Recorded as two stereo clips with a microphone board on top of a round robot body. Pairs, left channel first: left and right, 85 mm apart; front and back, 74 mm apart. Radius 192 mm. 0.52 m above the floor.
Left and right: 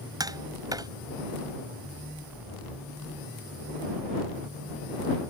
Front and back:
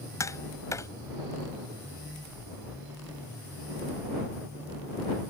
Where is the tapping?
45° right.